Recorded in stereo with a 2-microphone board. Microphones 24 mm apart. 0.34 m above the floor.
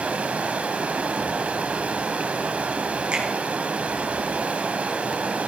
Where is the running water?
70° right (ahead or behind), 0.9 m.